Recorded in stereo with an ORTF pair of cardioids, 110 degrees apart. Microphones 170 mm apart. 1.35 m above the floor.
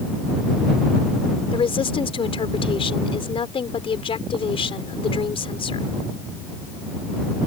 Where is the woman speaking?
35° left.